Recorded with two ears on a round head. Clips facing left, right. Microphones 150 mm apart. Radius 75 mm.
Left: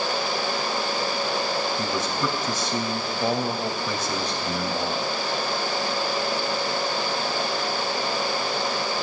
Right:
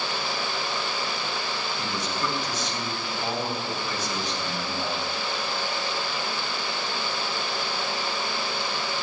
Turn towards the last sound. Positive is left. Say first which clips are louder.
# left 4 dB
turn(degrees=80)